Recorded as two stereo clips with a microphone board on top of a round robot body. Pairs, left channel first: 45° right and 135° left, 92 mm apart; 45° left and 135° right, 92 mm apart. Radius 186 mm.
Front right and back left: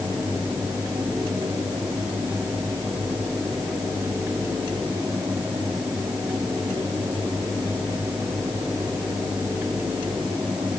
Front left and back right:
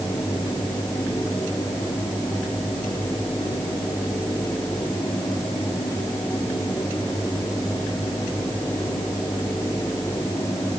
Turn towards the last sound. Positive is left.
No sound to turn to.